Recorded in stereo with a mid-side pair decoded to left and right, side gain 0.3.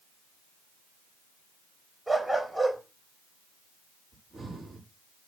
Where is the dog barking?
25° right, 3.5 m.